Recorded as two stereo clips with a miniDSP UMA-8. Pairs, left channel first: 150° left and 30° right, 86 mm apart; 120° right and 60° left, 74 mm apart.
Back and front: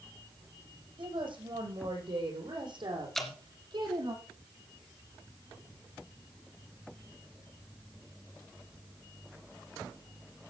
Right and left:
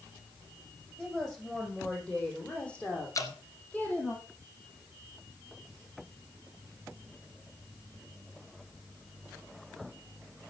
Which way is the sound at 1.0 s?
35° right.